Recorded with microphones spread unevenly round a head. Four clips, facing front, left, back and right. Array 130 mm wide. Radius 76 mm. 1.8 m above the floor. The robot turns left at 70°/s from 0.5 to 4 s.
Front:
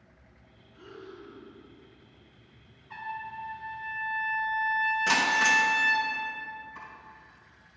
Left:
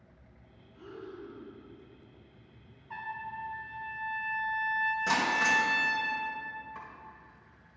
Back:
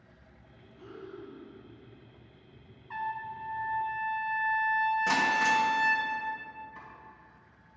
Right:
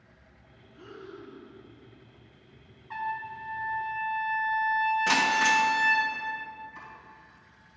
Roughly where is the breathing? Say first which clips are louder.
Even, back 1 dB; ahead right.